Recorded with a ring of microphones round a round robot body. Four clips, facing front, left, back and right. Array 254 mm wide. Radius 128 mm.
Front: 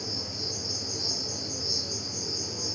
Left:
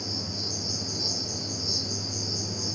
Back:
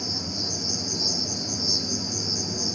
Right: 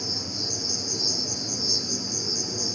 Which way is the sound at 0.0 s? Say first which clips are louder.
Right 1 dB, back 4 dB; 175° right.